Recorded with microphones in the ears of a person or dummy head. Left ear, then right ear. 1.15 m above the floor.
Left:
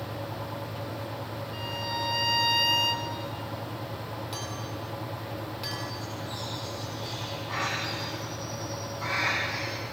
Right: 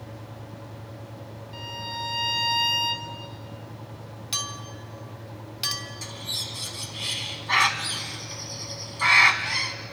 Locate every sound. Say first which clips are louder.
1.5 s a violin: even; centre (ahead or behind), 1.3 m
4.3 s a clink: right 4 dB; 35° right (ahead or behind), 2.5 m
6.0 s a bird: right 4 dB; 45° right (ahead or behind), 1.4 m